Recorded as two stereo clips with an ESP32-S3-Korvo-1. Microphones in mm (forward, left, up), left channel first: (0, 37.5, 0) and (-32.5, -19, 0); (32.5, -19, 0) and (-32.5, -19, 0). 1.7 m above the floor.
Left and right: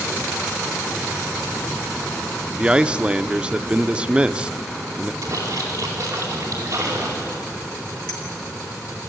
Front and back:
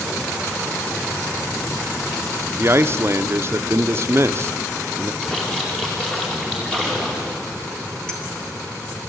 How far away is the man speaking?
About 0.6 m.